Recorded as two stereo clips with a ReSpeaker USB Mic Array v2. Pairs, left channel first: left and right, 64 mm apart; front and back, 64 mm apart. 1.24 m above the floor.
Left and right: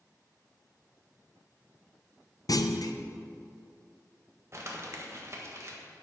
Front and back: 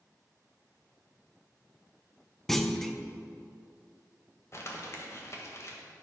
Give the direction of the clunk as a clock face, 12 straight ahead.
9 o'clock.